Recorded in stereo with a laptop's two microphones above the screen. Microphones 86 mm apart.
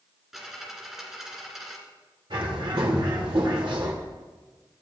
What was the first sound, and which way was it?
A dropped coin, 5° right (ahead or behind).